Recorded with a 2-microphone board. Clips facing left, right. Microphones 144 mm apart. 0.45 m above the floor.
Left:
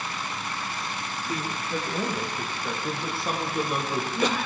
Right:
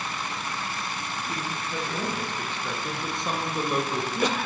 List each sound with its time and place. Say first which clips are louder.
1.3 s a man speaking: left 4 dB; 20° left (ahead or behind), 8.5 m; by 4.4 s 5° right (ahead or behind), 6.5 m